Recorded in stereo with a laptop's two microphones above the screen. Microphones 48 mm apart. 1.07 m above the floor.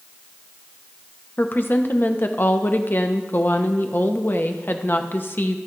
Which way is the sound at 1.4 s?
45° left (ahead or behind).